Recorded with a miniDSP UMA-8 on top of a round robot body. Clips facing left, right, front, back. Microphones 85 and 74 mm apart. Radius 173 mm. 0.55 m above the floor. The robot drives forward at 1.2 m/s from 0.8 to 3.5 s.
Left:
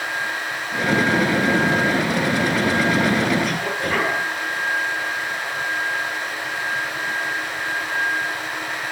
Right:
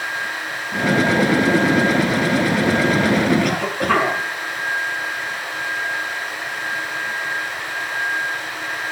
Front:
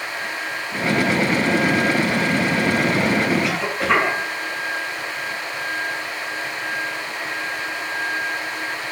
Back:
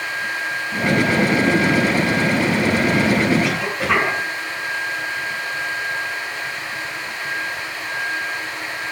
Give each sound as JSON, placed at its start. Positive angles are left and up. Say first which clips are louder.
{"t": 3.4, "sound": "a cough", "louder": "right 4 dB, even", "azimuth_deg": -90, "distance_m": 9.5}